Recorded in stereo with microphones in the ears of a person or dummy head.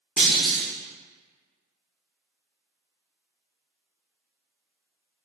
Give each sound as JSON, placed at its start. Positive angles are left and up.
{"t": 0.2, "sound": "a clunk", "side_deg": 0, "distance_m": 1.0}